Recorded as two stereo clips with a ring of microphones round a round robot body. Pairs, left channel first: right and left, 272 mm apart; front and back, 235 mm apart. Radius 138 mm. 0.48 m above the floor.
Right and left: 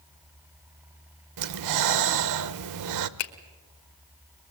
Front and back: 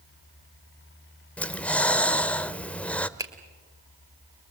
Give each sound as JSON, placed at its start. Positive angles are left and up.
{"t": 1.4, "sound": "breathing", "azimuth_deg": 85, "distance_m": 0.8}
{"t": 3.2, "sound": "a finger snap", "azimuth_deg": -105, "distance_m": 1.6}